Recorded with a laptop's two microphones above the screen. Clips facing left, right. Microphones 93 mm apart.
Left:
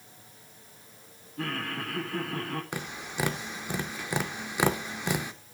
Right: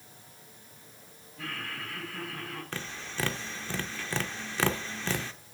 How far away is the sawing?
No sawing in this recording.